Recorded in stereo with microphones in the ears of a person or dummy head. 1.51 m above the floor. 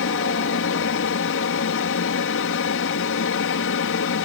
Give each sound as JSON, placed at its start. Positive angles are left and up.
{"t": 0.0, "sound": "an aircraft", "side_deg": 60}